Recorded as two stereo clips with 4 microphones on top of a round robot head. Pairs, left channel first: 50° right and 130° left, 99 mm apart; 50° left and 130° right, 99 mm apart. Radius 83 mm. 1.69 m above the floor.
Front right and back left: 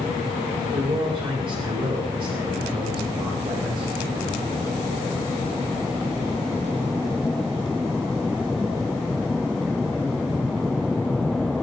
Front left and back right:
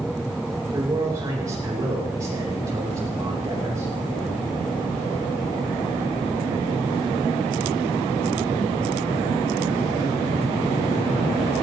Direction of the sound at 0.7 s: 170° left.